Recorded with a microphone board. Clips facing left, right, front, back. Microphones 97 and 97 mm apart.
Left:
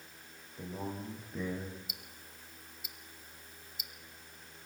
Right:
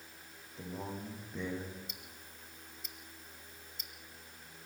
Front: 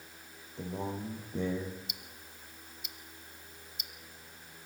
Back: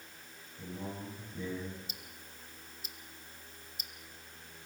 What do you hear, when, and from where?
0.6 s a man speaking: 5° left, 8 m
1.9 s ticking: 165° left, 1.2 m